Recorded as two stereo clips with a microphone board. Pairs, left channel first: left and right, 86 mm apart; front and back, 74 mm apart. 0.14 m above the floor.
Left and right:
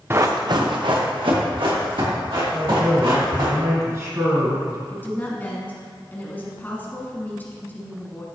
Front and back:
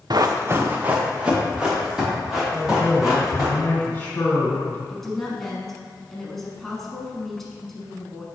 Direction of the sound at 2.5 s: 55° right.